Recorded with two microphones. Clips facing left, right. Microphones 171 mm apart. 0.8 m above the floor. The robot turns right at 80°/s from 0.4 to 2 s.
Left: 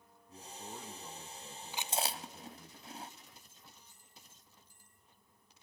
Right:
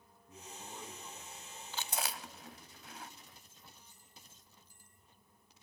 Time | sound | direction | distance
0.3 | a man speaking | 20° right | 7 m
1.7 | chewing | 10° left (ahead or behind) | 1.1 m